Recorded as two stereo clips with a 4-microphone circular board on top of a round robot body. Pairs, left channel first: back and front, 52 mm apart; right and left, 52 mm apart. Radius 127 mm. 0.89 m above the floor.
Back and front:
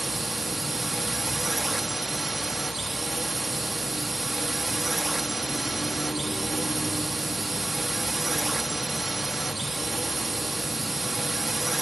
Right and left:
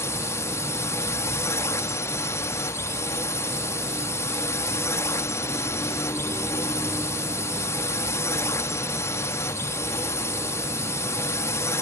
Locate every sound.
0.0 s a drone: 90° right